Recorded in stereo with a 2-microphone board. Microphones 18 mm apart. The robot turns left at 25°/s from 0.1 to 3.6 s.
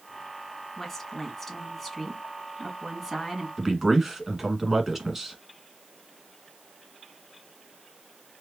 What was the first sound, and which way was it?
A woman speaking, 30° left.